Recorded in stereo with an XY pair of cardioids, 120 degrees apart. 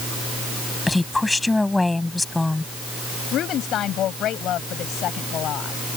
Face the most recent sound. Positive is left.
turn(degrees=60)